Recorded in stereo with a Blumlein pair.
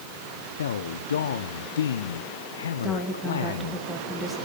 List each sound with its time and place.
0.6 s a man speaking: 65° left, 0.8 m
2.8 s a woman speaking: 5° left, 2 m